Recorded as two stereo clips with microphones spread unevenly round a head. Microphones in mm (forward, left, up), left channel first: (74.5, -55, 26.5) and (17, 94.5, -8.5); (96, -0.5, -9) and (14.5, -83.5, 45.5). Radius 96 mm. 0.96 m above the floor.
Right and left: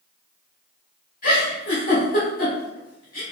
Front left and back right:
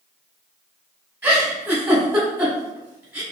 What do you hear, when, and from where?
1.2 s a giggle: 85° right, 1.3 m